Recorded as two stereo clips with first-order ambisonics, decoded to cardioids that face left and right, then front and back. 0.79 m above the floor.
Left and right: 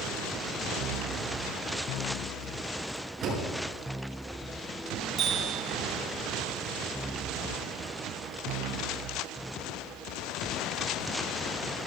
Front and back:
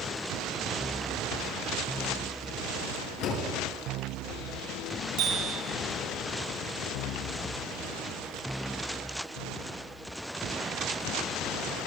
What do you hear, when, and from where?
3.2 s a door slam: 30° right, 8 m
5.2 s a bicycle bell: 150° right, 5.5 m